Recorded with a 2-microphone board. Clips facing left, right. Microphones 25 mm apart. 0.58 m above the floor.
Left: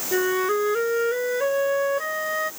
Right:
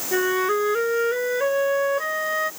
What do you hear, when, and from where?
0.1 s a flute: 10° right (ahead or behind)